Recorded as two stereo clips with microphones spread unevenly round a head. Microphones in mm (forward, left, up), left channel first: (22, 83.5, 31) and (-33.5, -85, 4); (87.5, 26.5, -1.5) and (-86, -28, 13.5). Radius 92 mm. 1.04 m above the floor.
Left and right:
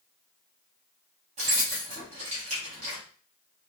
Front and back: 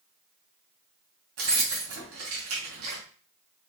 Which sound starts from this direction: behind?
Keys jangling, at 1.4 s.